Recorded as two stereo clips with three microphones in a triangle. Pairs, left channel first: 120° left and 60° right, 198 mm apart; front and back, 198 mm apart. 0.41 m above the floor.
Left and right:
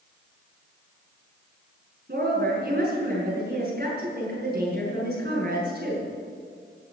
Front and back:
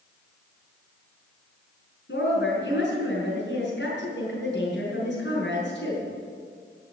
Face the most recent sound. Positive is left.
turn(degrees=-25)